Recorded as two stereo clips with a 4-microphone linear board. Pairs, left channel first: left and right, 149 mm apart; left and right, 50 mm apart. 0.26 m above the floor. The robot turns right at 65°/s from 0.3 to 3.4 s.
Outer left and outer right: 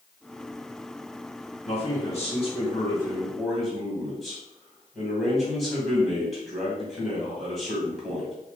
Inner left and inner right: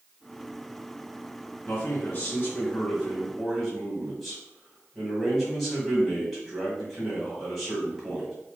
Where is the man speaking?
65° left, 1.7 m; by 8.3 s straight behind, 1.7 m.